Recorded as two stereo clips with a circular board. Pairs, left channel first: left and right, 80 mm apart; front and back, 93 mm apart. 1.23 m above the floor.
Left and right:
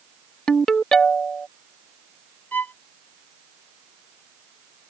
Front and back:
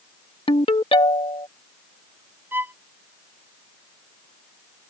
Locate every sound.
0.5 s a ringtone: 10° left
2.5 s a violin: 135° left